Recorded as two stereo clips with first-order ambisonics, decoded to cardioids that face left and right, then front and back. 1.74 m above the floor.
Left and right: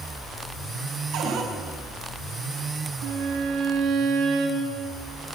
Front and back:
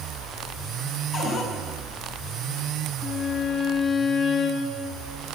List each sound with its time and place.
1.1 s a cupboard door: 55° right, 4 m
3.0 s a violin: 75° right, 2 m